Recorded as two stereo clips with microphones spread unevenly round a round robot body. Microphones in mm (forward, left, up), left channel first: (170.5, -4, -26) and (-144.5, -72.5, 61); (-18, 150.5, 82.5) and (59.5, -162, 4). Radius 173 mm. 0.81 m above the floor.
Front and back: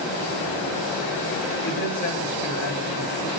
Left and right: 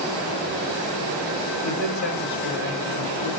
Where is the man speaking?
85° left, 5.5 m; by 3.3 s 90° left, 4.5 m.